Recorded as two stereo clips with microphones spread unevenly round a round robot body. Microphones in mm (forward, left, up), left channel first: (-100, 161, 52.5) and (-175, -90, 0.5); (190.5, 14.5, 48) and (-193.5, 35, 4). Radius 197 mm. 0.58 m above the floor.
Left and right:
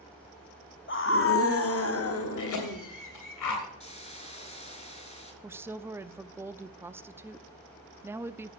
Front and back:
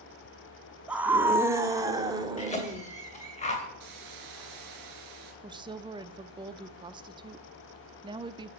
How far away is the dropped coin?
I don't hear a dropped coin.